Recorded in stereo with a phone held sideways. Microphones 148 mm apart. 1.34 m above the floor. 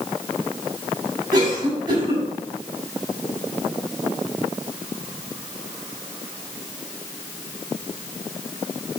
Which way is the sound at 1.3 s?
30° right (ahead or behind).